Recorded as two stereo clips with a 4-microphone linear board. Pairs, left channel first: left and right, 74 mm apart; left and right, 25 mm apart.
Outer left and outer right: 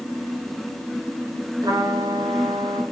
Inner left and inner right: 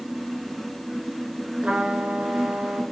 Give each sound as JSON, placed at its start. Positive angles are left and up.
{"t": 1.6, "sound": "a trumpet", "side_deg": -75, "distance_m": 1.5}